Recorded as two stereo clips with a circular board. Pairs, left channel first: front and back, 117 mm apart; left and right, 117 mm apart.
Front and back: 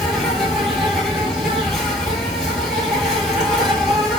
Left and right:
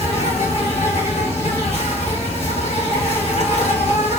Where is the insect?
90° left, 1.4 m.